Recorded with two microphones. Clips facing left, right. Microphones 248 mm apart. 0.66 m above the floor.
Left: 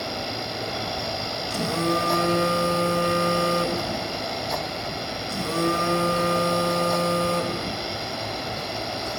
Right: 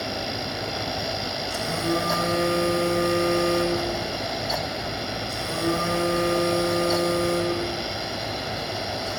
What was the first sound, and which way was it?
A phone buzzing, 85° left.